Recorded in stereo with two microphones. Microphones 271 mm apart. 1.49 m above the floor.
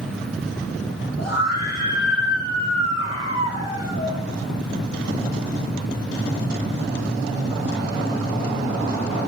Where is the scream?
75° left (ahead or behind), 5 m.